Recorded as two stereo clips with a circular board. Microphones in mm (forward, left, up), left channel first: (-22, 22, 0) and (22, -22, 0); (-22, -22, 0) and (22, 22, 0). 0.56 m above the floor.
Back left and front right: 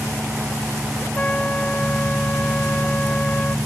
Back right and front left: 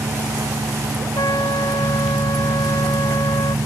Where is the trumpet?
155° right.